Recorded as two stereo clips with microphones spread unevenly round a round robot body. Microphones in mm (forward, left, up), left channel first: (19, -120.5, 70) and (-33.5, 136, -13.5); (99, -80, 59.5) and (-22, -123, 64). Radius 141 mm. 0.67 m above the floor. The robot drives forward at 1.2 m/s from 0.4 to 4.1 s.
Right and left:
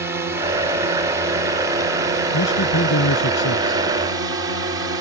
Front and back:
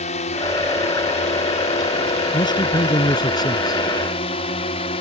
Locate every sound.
0.0 s a drone: 35° left; by 5.0 s 45° left
2.3 s a man speaking: 35° right; by 3.8 s 45° right